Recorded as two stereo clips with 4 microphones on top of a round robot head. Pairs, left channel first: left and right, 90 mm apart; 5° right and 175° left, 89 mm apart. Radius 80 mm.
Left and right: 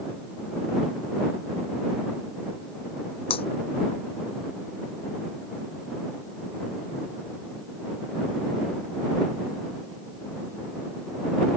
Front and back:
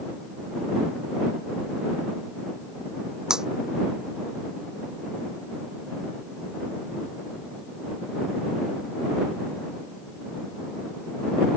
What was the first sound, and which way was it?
Breaking glass, 95° left.